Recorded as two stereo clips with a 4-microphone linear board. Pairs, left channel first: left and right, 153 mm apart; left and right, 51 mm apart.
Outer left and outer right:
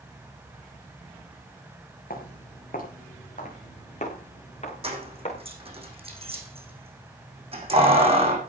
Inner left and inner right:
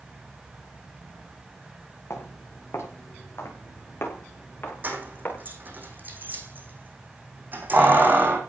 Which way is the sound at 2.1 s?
70° left (ahead or behind).